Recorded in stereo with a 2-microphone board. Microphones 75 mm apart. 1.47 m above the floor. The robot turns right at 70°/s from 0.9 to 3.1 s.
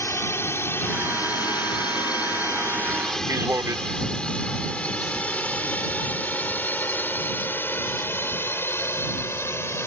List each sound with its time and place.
0.0 s a drone: 40° left (ahead or behind); by 9.9 s 35° left (ahead or behind)
3.3 s a man speaking: 40° right (ahead or behind)